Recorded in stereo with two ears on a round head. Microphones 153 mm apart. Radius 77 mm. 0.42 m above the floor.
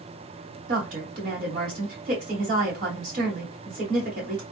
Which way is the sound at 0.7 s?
50° right (ahead or behind).